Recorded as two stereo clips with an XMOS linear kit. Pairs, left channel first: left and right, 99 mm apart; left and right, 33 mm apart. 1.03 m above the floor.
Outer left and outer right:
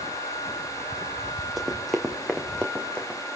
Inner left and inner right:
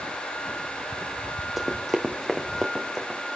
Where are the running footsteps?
Centre (ahead or behind), 2.5 m; by 3.2 s 15° left (ahead or behind), 3.5 m.